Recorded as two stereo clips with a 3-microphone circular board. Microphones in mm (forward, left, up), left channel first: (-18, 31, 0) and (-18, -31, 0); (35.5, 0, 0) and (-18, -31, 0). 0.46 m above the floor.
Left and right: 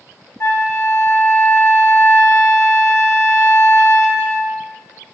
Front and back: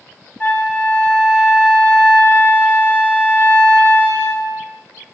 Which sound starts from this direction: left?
A flute, at 0.4 s.